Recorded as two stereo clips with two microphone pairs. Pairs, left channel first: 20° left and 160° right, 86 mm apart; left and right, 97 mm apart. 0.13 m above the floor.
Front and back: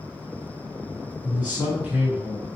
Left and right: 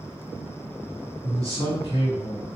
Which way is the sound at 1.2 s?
95° right.